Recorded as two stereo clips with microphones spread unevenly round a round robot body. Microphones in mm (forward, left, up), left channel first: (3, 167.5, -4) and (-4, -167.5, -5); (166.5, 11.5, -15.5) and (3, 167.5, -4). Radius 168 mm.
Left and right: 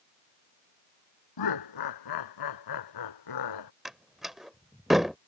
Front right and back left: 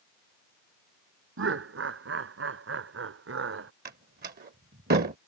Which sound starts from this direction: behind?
A door slam, at 3.9 s.